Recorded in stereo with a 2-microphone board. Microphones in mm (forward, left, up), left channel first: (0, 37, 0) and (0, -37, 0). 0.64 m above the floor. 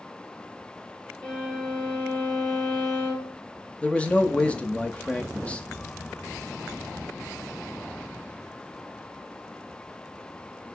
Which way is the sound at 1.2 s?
15° left (ahead or behind).